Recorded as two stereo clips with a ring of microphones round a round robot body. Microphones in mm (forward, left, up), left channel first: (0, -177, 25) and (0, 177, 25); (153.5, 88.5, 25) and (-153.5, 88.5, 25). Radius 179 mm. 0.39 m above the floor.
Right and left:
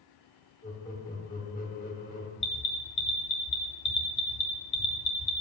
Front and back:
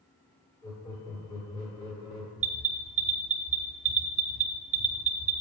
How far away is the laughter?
About 1.5 m.